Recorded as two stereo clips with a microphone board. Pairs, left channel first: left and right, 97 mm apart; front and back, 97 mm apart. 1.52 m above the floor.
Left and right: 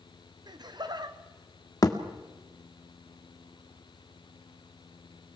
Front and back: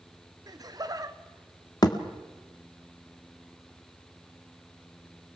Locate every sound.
0.5 s laughter: 130° right, 1.2 m
1.8 s a thud: 45° left, 1.7 m